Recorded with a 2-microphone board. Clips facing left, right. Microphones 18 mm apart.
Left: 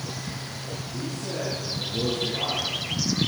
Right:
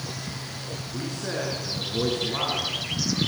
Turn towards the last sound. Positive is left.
turn(degrees=-65)  # may be behind; listen again after turning